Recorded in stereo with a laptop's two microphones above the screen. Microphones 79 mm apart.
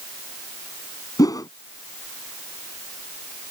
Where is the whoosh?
50° left (ahead or behind).